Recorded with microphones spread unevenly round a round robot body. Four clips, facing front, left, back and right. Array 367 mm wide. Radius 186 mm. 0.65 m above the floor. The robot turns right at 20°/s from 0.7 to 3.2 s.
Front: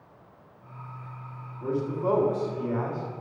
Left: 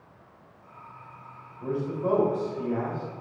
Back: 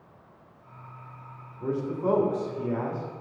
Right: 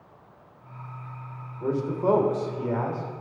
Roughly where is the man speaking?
Right.